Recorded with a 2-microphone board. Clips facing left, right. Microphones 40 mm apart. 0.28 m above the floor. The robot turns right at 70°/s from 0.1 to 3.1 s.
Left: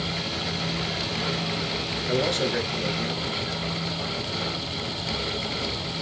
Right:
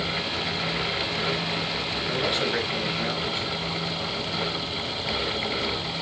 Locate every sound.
2.1 s a man speaking: straight behind, 5 m; by 3.5 s 105° right, 5 m